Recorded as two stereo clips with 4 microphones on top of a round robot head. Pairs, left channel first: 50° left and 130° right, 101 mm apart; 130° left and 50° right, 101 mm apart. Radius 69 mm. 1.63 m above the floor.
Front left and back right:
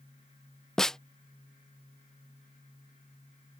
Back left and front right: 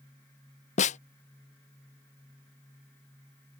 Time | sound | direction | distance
0.8 | a snare drum | 135° left | ?